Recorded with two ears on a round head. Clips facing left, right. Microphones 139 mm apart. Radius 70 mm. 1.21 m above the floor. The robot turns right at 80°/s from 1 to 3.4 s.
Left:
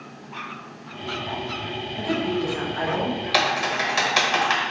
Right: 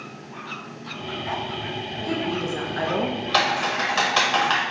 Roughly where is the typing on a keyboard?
Centre.